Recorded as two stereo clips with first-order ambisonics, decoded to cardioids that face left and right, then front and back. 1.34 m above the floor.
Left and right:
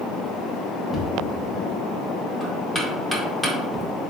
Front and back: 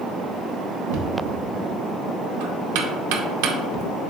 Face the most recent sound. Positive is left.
turn(degrees=180)